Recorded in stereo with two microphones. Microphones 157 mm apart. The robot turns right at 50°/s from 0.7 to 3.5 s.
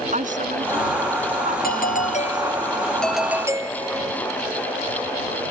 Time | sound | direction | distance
0.1 | a woman speaking | 55° right (ahead or behind) | ?
1.6 | a doorbell | 105° left | ?